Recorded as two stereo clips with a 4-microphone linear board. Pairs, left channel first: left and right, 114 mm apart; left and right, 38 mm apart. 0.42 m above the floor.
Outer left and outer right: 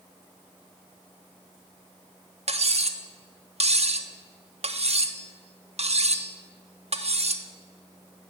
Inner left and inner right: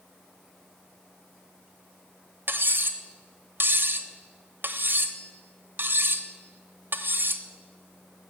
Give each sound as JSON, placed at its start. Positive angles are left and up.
{"t": 2.5, "sound": "cutlery clinking", "side_deg": -65, "distance_m": 0.8}